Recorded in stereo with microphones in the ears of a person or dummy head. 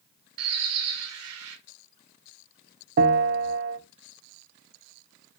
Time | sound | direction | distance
0.4 | a bird | 85° right | 1.0 m
3.0 | a bell | 50° right (ahead or behind) | 1.0 m